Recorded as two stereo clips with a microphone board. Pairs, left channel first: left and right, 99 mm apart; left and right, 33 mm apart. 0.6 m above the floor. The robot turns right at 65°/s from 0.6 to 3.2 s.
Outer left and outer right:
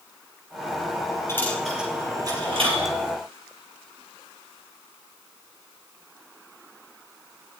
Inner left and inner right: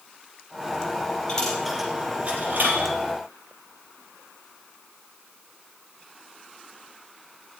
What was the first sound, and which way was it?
A dropped coin, 25° left (ahead or behind).